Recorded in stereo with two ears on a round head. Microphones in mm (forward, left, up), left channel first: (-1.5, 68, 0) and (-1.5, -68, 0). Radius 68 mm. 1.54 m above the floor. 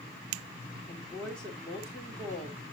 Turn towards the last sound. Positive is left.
turn(degrees=5)  # may be behind; listen again after turning